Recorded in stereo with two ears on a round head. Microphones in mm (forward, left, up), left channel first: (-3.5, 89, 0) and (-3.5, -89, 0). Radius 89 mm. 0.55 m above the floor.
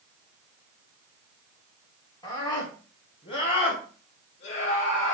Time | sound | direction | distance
2.2 | a scream | 20° left (ahead or behind) | 6.5 m